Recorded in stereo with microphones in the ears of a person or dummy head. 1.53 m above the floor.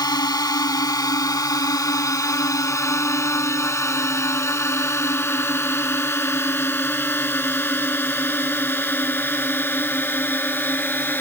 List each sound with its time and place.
0.0 s a drone: 25° left (ahead or behind); by 11.2 s 10° left (ahead or behind)